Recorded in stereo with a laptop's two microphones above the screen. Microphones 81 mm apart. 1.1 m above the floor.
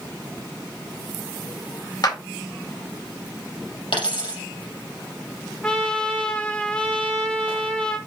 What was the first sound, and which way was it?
A clap, 55° left (ahead or behind).